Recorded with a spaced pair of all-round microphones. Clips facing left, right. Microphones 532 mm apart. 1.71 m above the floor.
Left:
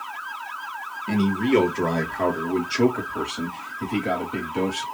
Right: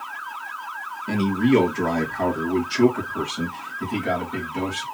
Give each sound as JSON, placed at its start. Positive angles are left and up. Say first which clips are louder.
{"t": 1.1, "sound": "a man speaking", "louder": "right 2 dB", "side_deg": 5, "distance_m": 1.5}